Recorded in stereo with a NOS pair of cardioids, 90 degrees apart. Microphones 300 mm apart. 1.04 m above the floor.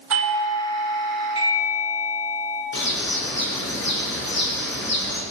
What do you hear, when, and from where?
0.1 s a doorbell: 55° right, 3.5 m
2.7 s a bird: 40° left, 4 m